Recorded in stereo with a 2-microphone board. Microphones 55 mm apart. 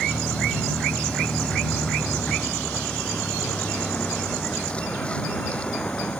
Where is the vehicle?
15° left (ahead or behind); by 6.2 s 20° left (ahead or behind).